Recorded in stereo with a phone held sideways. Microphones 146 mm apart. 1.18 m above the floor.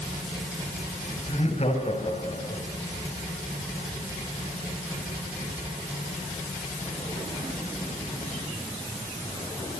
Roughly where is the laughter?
Left.